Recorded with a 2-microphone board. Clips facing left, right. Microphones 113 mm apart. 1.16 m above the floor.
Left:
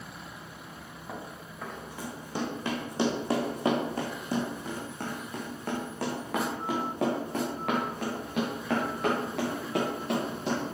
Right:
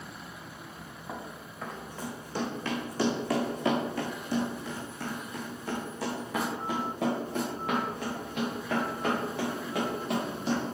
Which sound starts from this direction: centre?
Running footsteps, at 1.1 s.